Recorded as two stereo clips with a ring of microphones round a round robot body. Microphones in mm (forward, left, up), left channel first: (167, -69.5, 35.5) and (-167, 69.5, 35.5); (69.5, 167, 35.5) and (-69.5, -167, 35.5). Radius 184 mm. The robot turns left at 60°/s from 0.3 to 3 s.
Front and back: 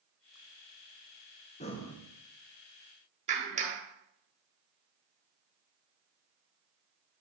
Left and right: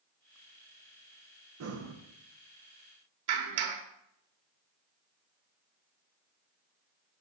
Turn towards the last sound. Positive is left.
turn(degrees=-130)